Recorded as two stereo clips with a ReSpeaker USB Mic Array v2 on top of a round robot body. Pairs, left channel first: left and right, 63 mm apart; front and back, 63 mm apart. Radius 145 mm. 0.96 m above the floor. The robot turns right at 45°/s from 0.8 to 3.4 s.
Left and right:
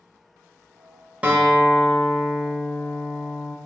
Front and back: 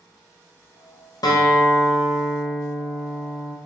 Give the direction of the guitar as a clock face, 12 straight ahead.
1 o'clock.